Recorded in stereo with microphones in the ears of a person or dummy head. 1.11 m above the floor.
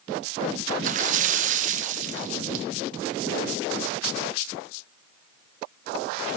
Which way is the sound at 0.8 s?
40° right (ahead or behind).